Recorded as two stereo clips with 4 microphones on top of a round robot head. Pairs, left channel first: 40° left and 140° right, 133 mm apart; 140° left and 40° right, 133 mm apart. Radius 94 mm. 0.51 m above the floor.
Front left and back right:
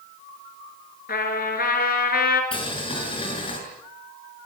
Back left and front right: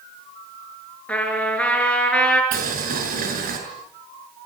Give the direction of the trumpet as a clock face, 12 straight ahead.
10 o'clock.